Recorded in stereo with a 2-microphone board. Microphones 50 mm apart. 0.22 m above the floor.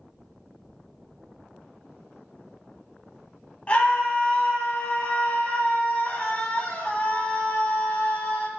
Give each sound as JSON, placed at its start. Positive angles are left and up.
{"t": 3.7, "sound": "a scream", "side_deg": 30, "distance_m": 1.2}